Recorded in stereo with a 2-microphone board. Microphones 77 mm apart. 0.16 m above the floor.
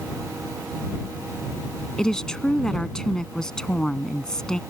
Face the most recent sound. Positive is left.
turn(degrees=10)  # may be behind; listen again after turning